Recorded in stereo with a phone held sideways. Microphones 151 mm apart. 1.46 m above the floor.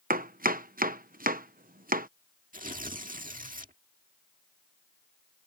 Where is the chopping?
65° right (ahead or behind).